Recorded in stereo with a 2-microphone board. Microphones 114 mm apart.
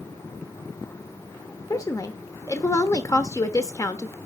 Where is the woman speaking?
30° left (ahead or behind), 0.9 m.